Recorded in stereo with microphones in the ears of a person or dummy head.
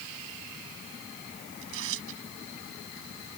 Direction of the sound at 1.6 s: 75° right (ahead or behind).